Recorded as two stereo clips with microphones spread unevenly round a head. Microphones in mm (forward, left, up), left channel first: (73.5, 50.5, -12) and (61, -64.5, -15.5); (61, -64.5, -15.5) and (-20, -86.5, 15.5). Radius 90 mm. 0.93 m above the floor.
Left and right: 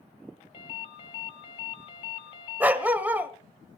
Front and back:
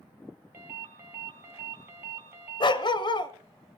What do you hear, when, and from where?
0.5 s a ringtone: 140° left, 0.9 m
2.6 s a dog barking: 20° right, 1.1 m